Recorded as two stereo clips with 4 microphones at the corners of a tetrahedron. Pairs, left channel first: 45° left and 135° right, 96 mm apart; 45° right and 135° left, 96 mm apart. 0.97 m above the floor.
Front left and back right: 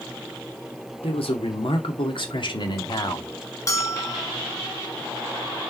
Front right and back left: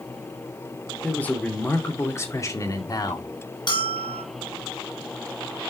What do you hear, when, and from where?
1.0 s a man speaking: 30° left, 2.5 m; by 3.3 s 5° right, 2 m
3.7 s a bell: 10° right, 3 m